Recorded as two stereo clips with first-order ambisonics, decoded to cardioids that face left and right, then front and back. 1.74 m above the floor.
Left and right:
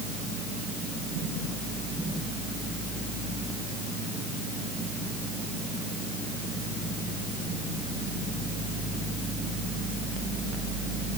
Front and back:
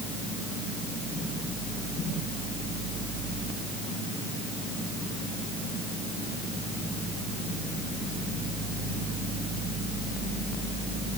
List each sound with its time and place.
Only background noise.